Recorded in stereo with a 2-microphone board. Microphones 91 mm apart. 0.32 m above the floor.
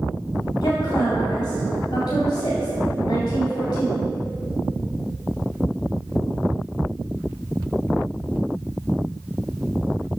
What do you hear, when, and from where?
0.6 s a woman speaking: 50° left (ahead or behind), 1.7 m